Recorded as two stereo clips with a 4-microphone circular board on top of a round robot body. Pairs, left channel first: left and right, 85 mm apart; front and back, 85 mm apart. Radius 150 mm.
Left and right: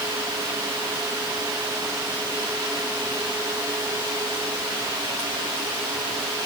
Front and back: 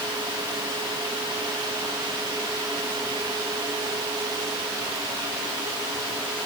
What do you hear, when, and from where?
Only background noise.